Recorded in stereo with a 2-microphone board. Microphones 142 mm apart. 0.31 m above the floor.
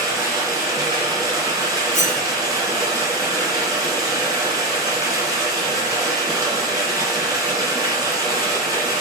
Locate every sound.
0.0 s running water: 25° right (ahead or behind), 2.5 m
1.9 s cutlery clinking: 60° left (ahead or behind), 1.6 m